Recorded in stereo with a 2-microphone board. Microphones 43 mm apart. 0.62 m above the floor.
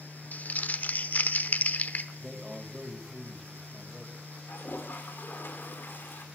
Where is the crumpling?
40° left (ahead or behind), 0.8 m.